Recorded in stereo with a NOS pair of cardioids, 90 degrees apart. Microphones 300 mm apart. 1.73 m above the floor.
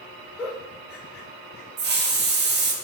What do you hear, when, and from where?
0.4 s a giggle: 45° left, 1.4 m
1.8 s a hiss: 35° right, 0.8 m